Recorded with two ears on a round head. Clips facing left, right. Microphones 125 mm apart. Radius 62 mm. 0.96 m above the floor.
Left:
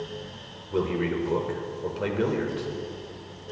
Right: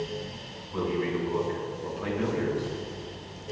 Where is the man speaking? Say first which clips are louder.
Left 2 dB; 85° left, 3 m.